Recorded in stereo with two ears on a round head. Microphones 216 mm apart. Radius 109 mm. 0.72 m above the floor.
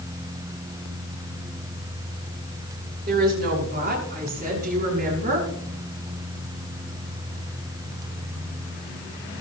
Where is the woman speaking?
40° right (ahead or behind), 9.5 m; by 5.5 s 35° right (ahead or behind), 8.5 m.